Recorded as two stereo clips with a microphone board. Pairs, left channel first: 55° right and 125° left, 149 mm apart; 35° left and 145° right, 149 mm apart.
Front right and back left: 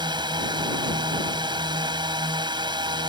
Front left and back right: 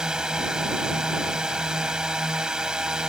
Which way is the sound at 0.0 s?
135° left.